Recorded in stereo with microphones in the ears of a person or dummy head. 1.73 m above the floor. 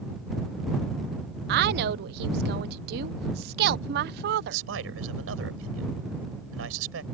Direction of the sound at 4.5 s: 80° right.